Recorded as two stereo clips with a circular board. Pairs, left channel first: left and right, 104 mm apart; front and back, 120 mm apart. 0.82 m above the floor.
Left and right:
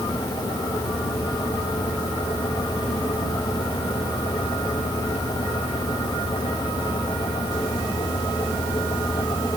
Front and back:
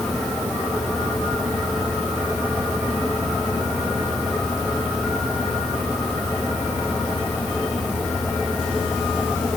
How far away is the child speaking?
No child speaking in this recording.